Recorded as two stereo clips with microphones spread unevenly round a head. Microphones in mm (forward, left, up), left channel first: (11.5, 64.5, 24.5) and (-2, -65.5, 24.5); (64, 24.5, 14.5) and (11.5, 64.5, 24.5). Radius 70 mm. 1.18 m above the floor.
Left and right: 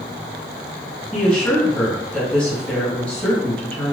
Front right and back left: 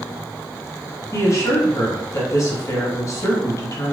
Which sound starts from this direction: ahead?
A woman speaking, at 1.1 s.